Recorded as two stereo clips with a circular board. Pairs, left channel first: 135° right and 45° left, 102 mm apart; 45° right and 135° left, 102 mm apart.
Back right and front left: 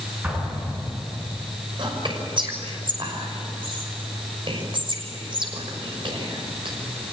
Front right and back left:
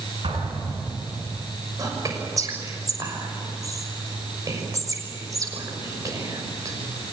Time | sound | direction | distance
0.2 | an explosion | 115° left | 7.5 m
1.8 | whispering | 80° left | 6 m